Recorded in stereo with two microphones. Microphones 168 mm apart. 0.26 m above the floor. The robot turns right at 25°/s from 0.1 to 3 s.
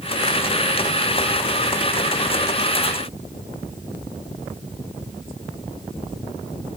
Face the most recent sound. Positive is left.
No sound to turn to.